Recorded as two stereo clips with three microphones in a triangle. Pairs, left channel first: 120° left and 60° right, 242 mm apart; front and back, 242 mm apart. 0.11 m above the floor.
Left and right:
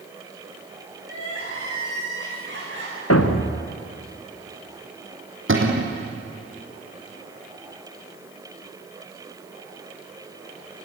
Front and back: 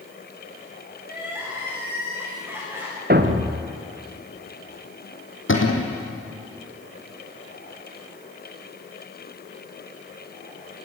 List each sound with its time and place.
1.0 s crying: 100° right, 9.5 m
3.1 s a thud: 130° left, 2 m
5.5 s a cupboard door: 30° right, 3.5 m